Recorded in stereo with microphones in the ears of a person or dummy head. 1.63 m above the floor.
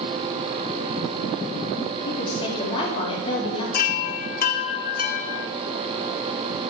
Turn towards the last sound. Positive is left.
turn(degrees=40)  # may be behind; listen again after turning